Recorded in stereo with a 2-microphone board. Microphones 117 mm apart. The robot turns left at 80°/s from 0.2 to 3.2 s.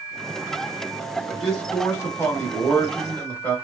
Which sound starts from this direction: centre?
A man speaking, at 1.3 s.